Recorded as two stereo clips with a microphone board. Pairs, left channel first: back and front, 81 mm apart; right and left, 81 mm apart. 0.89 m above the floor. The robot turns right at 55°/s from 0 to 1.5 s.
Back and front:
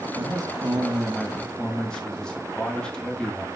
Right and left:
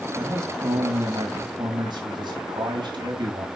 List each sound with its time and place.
0.1 s a man speaking: 25° left, 1.9 m; by 3.5 s 100° left, 1.9 m